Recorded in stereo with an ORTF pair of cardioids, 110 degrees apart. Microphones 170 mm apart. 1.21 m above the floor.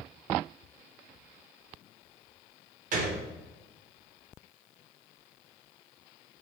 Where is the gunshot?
50° right, 0.9 m.